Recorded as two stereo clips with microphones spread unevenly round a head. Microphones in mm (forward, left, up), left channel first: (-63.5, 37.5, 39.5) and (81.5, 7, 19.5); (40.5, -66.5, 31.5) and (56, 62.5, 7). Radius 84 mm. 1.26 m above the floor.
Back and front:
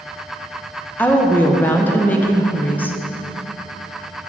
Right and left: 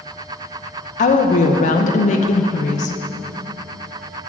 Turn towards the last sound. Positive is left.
turn(degrees=-110)